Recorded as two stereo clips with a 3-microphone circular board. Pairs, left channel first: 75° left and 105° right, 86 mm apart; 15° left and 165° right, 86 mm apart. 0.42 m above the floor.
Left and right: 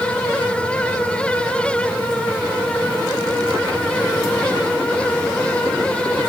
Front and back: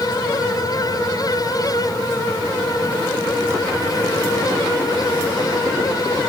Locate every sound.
Only background noise.